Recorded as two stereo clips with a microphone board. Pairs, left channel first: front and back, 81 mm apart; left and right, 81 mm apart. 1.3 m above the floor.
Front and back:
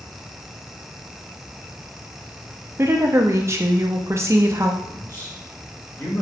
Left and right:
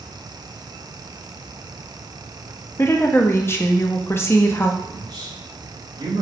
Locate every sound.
2.8 s a woman speaking: 135° left, 0.6 m
4.8 s a man speaking: 55° right, 1.9 m